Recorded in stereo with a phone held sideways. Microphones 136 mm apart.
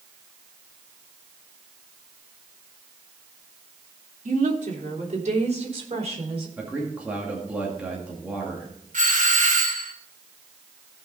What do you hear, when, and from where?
4.2 s a woman speaking: 65° right (ahead or behind), 2.5 m; by 6.5 s 45° right (ahead or behind), 4.5 m
6.6 s a man speaking: 10° right (ahead or behind), 2 m
8.9 s a doorbell: 70° right (ahead or behind), 1.6 m